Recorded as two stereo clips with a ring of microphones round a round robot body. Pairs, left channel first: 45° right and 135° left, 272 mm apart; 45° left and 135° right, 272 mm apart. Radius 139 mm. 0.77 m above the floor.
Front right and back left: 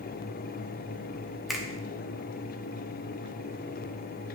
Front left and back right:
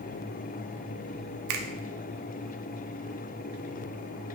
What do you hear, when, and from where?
1.5 s a finger snap: 135° right, 1.0 m